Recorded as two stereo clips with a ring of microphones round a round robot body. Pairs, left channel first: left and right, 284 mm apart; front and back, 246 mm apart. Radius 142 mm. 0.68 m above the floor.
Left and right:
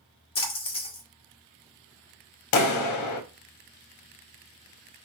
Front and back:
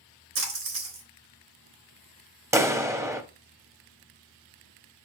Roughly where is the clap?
Left.